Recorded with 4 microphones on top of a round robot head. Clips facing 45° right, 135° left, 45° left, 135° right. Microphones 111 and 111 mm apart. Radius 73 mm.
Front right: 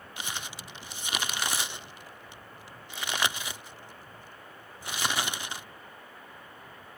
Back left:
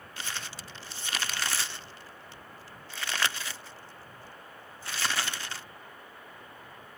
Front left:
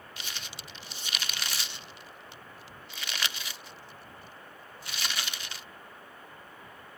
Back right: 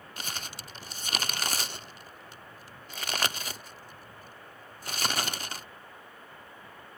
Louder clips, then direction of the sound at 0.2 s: Front right 1 dB, back right 5 dB; 110° right.